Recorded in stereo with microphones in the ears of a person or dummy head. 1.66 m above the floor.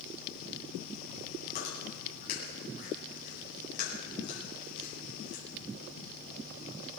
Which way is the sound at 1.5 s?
55° left (ahead or behind).